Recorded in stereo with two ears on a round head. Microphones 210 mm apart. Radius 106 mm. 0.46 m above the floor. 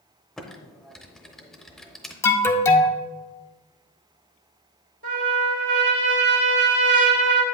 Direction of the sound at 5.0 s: 55° right (ahead or behind).